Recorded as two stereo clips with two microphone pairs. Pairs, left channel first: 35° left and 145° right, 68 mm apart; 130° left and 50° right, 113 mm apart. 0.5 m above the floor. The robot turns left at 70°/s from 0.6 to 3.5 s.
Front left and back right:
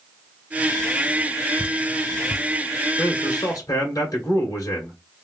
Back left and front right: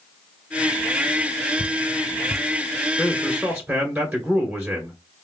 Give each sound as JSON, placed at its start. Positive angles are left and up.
{"t": 1.6, "sound": "dripping", "azimuth_deg": 90, "distance_m": 0.9}
{"t": 3.0, "sound": "a man speaking", "azimuth_deg": 65, "distance_m": 2.0}